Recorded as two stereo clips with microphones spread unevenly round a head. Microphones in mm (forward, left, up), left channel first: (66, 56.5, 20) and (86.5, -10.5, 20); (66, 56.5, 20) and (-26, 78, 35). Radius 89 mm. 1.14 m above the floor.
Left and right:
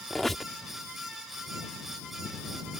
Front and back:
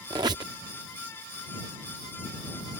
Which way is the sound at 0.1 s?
165° right.